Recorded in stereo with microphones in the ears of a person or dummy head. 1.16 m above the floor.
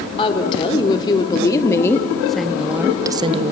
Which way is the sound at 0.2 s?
20° left (ahead or behind).